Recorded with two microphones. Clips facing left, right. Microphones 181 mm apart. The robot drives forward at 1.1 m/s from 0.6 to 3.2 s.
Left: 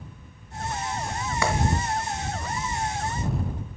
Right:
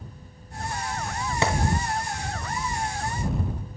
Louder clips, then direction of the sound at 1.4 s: Right 1 dB; 25° right (ahead or behind).